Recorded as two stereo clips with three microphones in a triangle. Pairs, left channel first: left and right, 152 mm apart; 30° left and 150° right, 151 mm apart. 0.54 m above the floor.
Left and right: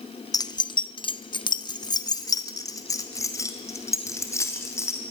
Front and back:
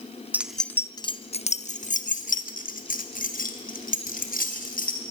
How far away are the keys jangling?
About 0.6 m.